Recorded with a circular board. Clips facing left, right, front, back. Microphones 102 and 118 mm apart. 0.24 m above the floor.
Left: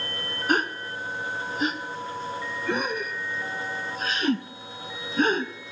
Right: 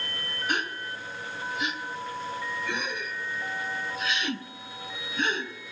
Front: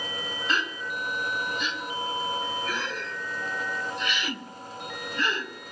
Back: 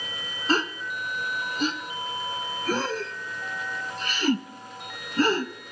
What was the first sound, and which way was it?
A gasp, 135° left.